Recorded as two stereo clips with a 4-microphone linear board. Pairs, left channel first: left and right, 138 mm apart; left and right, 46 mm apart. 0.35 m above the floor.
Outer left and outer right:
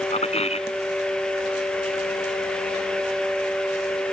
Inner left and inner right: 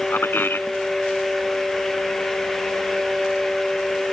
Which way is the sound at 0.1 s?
50° left (ahead or behind).